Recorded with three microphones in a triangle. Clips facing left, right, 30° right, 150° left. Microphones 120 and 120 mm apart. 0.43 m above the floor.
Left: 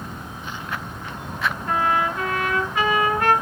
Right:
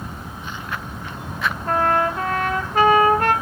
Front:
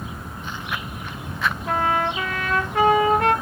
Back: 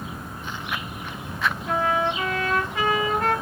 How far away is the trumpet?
About 0.7 m.